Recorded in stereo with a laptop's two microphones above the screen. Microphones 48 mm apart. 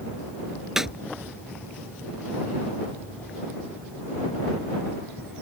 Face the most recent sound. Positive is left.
turn(degrees=-10)  # may be behind; listen again after turning